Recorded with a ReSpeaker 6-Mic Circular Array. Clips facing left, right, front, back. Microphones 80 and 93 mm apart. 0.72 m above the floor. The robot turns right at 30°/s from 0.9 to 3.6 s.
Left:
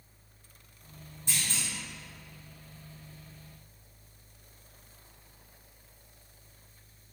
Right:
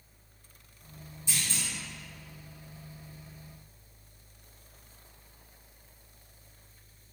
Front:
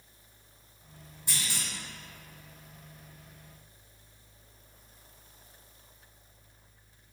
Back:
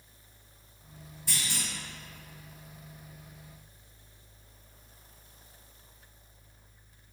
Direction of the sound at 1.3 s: 65° left.